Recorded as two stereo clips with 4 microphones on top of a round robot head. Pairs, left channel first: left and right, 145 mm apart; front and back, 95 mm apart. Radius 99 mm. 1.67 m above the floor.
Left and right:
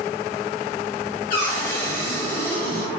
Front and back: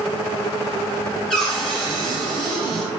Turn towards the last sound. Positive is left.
turn(degrees=90)